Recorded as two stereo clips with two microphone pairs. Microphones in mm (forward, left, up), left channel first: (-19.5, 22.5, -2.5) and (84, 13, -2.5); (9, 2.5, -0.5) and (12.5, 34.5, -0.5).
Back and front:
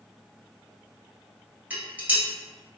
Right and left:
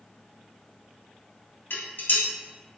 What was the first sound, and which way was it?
Dishes clattering, 80° right.